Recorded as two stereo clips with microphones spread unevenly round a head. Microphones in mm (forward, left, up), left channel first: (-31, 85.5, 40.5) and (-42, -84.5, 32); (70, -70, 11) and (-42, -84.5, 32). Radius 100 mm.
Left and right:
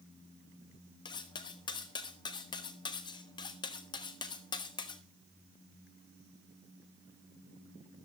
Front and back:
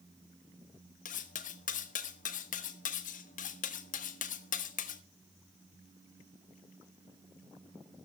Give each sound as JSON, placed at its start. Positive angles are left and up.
{"t": 1.1, "sound": "cutlery clinking", "azimuth_deg": 20, "distance_m": 0.9}